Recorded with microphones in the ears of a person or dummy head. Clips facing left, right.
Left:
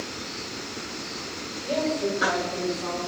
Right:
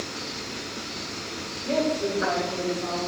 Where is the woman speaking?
40° right (ahead or behind), 4.5 m; by 3.0 s 25° right (ahead or behind), 5 m.